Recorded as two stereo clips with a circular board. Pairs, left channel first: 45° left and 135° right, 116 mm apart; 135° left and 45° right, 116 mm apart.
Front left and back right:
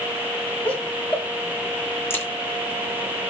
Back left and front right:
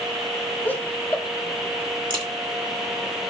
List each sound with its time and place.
0.7 s laughter: 100° left, 1.1 m
2.1 s a crack: 20° right, 2 m